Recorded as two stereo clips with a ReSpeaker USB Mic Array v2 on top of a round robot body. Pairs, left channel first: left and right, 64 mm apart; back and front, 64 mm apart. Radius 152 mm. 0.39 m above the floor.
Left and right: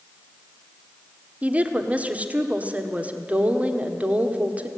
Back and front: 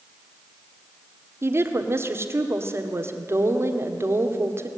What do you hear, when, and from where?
1.4 s a woman speaking: 30° right, 1.9 m